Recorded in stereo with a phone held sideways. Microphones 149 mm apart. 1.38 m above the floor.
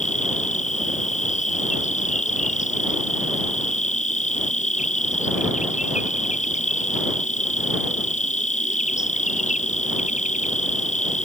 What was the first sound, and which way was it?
An insect, 55° left (ahead or behind).